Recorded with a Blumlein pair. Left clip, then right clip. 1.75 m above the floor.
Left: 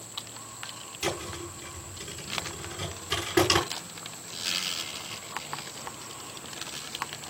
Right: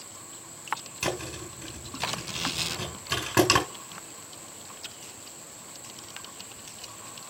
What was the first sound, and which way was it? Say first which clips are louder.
A thud: left 5 dB; 20° right.